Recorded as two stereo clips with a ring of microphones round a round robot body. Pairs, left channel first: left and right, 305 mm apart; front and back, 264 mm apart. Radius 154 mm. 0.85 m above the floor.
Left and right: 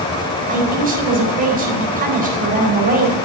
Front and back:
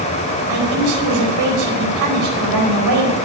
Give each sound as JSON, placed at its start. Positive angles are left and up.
{"t": 0.5, "sound": "a man speaking", "azimuth_deg": -155, "distance_m": 4.5}